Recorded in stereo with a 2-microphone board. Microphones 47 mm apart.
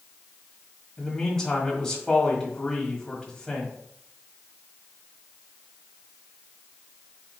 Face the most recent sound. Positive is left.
turn(degrees=10)  # may be behind; listen again after turning